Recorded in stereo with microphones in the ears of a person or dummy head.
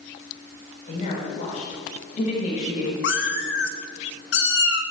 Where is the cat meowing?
60° left (ahead or behind), 1.1 m.